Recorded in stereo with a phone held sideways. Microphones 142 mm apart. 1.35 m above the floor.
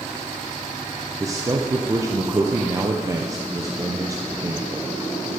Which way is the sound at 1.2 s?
20° right (ahead or behind).